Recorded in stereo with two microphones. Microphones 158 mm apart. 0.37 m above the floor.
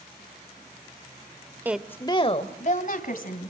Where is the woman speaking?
15° right (ahead or behind), 0.9 m; by 3.5 s 65° left (ahead or behind), 3 m.